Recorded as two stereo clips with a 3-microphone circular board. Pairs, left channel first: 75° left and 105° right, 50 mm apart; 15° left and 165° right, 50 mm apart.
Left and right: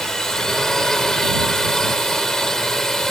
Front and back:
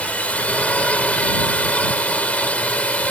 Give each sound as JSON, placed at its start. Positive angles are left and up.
{"t": 0.0, "sound": "a drone", "azimuth_deg": 5}